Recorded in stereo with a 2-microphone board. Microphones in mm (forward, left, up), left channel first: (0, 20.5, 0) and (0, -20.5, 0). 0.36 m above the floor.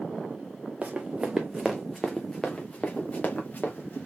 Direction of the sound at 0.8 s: 30° right (ahead or behind).